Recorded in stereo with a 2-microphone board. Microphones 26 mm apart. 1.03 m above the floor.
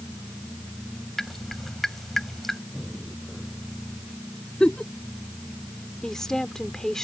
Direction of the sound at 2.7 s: 10° left (ahead or behind).